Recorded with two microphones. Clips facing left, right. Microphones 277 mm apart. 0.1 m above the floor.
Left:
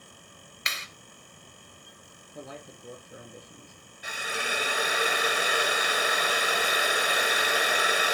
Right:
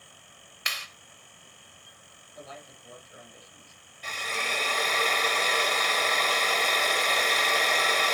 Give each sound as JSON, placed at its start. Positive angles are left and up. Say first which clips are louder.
{"t": 0.7, "sound": "a clap", "louder": "left 1 dB", "side_deg": 25, "distance_m": 1.6}
{"t": 2.4, "sound": "a man speaking", "louder": "left 4 dB", "side_deg": 55, "distance_m": 4.0}
{"t": 4.0, "sound": "a drill", "louder": "left 1 dB", "side_deg": 10, "distance_m": 0.6}